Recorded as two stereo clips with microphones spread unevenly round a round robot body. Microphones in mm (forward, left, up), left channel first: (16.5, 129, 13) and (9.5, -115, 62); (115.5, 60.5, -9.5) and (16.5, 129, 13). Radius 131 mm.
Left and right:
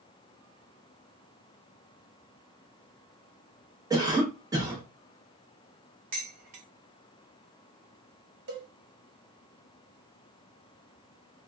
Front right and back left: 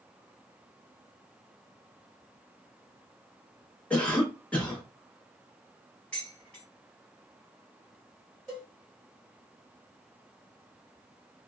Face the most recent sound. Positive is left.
turn(degrees=-100)